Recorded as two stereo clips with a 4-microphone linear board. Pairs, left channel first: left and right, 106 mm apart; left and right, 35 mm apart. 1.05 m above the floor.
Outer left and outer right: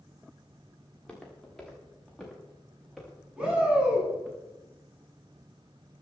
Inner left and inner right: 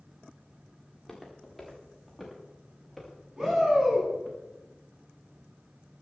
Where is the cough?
No cough in this recording.